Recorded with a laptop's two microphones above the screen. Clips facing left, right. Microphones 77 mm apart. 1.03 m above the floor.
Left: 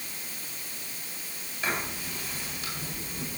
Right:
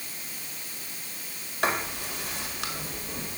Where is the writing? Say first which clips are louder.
Right 4 dB; 65° right (ahead or behind), 2 m.